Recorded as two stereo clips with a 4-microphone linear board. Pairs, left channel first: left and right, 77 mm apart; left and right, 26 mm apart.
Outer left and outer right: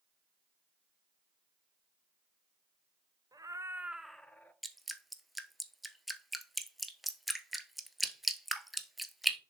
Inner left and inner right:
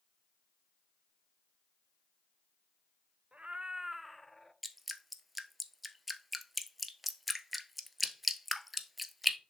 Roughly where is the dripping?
Centre.